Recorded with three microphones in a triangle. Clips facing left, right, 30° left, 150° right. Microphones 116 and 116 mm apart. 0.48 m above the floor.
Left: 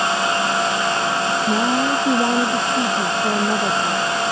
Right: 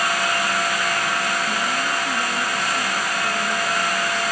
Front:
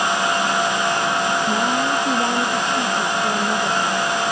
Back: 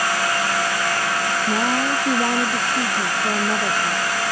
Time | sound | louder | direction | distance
1.5 | a woman speaking | left 6 dB, front 1 dB | 130° left | ?